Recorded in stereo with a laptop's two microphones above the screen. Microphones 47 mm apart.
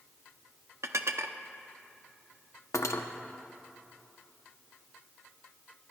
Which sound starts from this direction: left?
Cutlery clinking, at 2.7 s.